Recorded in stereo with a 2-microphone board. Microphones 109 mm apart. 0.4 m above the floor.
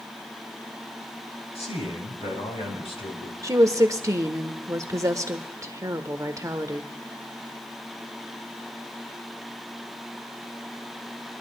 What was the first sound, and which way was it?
A man speaking, 75° left (ahead or behind).